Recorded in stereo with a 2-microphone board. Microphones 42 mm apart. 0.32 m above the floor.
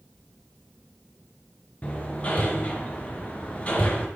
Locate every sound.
1.8 s hammering: 30° left (ahead or behind), 3.5 m